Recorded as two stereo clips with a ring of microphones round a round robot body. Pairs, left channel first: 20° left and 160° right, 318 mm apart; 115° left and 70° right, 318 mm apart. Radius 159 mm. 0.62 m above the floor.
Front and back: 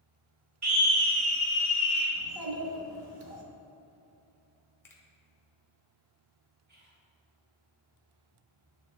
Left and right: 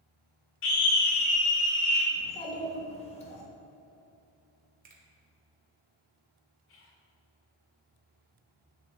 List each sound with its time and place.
0.6 s a scream: 165° left, 1.5 m; by 2.0 s 105° left, 2.5 m
2.1 s a child speaking: 175° right, 1.2 m
4.8 s a finger snap: 50° right, 1.1 m
6.7 s whispering: 150° left, 1.0 m